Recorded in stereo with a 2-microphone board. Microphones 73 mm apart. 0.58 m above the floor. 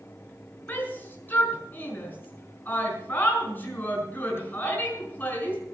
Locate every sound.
0.7 s a shout: 30° left (ahead or behind), 5.5 m